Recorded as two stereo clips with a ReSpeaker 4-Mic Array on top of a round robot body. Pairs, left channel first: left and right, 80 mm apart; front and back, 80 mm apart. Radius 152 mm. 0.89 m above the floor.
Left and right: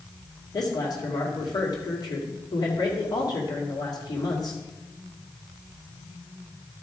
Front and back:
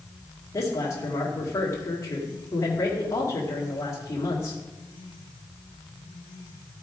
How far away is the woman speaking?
About 2 m.